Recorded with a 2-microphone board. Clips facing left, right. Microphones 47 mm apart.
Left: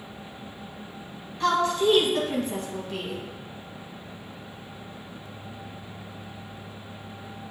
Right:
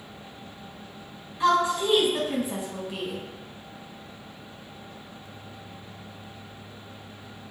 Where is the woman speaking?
15° right (ahead or behind), 1.4 m.